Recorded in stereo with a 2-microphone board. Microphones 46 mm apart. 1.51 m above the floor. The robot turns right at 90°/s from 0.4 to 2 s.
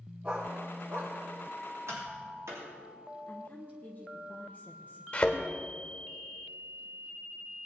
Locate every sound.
0.2 s a dog barking: 25° right (ahead or behind), 4 m; by 1.1 s 75° right (ahead or behind), 4 m
1.9 s tapping: 85° right, 3 m; by 2.7 s 80° right, 3 m
3.3 s a woman speaking: 40° left (ahead or behind), 1.1 m
5.1 s a thud: 25° left (ahead or behind), 1.4 m